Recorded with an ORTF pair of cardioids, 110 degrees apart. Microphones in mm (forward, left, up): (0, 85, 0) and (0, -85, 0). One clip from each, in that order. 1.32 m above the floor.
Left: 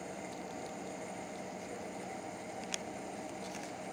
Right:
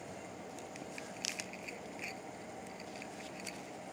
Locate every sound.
0.0 s a machine running: 30° left